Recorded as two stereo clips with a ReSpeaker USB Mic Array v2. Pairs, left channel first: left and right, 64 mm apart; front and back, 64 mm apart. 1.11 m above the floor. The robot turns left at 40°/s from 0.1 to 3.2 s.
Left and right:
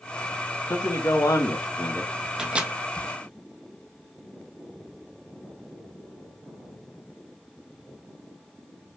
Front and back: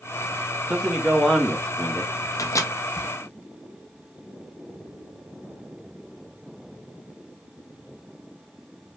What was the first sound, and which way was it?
A man speaking, 110° left.